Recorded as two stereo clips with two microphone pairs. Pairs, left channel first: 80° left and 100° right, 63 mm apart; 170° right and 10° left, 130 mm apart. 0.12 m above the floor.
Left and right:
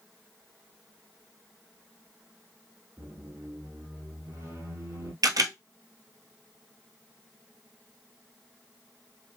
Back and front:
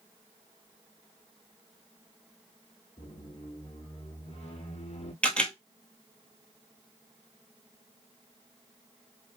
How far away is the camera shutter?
About 0.6 m.